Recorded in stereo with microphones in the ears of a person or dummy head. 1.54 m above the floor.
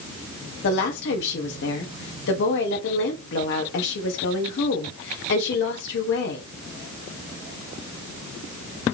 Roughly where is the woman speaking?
Left.